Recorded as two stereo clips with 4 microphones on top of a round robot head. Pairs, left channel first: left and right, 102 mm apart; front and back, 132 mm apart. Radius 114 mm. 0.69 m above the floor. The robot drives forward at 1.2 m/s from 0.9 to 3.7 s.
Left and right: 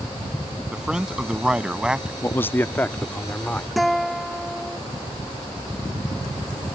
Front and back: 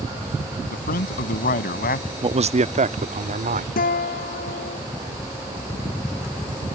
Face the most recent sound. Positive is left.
turn(degrees=0)